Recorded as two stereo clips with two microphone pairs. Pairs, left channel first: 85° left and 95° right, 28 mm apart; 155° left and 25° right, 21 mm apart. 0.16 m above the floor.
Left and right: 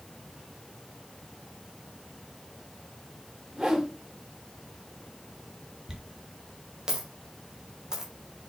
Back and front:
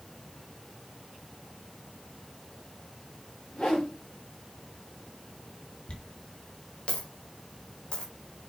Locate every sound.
3.5 s a whoosh: 170° right, 4 m
5.9 s a dropped coin: 165° right, 2.0 m